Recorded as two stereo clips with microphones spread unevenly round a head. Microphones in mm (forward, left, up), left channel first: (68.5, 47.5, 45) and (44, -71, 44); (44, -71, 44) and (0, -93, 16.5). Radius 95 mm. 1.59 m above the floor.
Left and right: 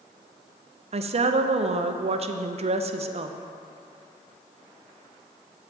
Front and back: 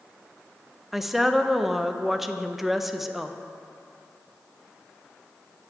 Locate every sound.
0.9 s a woman speaking: 70° right, 0.6 m